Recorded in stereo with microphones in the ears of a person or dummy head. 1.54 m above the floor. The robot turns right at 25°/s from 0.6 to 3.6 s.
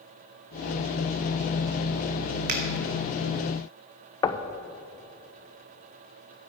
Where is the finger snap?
50° right (ahead or behind), 1.5 m.